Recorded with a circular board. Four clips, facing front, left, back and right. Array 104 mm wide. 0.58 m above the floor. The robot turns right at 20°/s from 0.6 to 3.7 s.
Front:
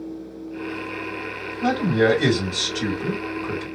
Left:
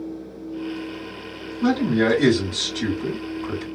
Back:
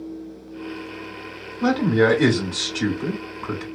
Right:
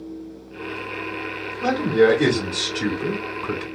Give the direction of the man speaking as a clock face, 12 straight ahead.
6 o'clock.